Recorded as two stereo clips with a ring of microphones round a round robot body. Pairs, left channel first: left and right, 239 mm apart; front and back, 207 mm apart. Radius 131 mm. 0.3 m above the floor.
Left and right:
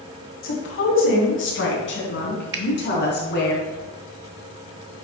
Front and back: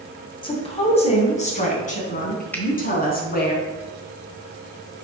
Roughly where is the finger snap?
Right.